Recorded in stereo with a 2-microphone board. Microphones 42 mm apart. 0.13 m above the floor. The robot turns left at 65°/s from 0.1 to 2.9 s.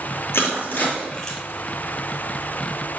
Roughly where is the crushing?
Left.